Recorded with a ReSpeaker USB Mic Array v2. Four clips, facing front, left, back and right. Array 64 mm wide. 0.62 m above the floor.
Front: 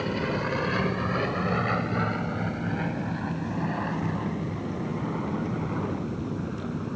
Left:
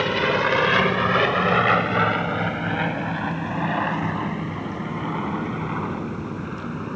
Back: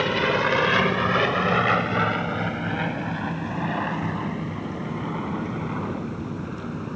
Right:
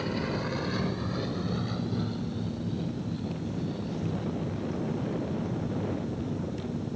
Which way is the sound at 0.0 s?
130° left.